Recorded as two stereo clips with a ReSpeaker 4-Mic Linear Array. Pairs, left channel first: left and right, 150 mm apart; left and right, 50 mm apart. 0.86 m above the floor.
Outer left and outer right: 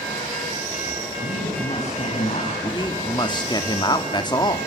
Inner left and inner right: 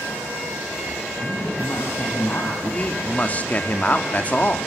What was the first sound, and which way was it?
A man speaking, 50° left (ahead or behind).